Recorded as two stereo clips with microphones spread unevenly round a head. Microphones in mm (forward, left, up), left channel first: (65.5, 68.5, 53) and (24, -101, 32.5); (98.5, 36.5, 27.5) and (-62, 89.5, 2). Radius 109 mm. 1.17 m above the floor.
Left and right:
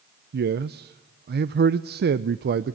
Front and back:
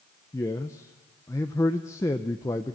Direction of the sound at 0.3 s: 95° right.